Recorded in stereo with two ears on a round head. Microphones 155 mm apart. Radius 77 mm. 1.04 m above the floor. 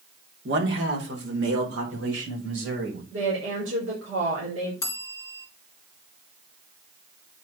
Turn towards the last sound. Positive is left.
turn(degrees=15)  # may be behind; listen again after turning